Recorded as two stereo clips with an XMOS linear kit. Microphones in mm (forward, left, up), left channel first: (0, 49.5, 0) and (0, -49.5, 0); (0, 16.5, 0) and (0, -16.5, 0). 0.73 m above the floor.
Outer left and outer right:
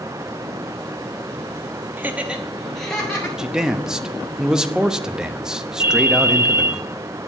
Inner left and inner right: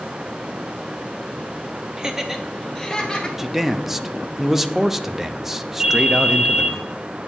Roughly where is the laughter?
Centre.